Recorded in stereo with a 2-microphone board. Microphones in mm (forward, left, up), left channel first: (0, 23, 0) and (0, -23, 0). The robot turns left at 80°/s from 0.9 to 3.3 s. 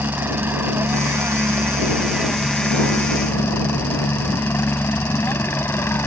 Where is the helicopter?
55° right; by 6.1 s 110° left.